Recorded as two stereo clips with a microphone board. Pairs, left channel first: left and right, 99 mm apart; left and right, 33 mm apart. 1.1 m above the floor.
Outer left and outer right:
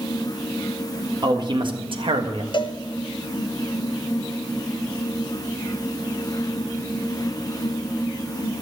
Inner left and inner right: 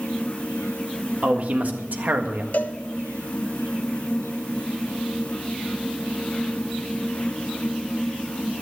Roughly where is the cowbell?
Left.